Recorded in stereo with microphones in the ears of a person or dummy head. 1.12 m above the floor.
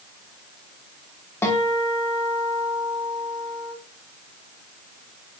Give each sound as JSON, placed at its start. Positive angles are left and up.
{"t": 1.4, "sound": "a guitar", "side_deg": 10, "distance_m": 1.4}